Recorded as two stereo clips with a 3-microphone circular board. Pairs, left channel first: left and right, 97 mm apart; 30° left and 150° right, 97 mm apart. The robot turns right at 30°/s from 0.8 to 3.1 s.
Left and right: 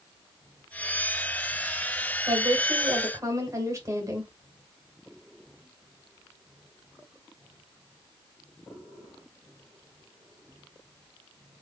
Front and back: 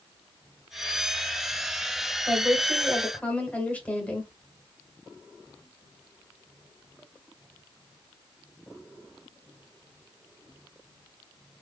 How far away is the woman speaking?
About 1.8 m.